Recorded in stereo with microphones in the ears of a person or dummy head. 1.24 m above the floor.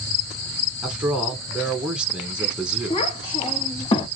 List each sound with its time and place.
0.8 s a man speaking: centre (ahead or behind), 0.7 m
2.9 s a child speaking: 35° left (ahead or behind), 1.2 m